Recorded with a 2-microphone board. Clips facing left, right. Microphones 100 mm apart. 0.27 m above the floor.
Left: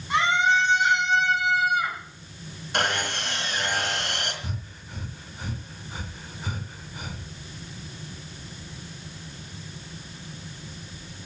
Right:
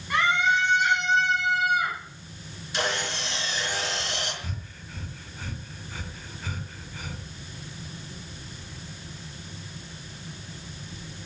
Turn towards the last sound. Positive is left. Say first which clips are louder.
# left 2 dB
turn(degrees=20)  # may be behind; listen again after turning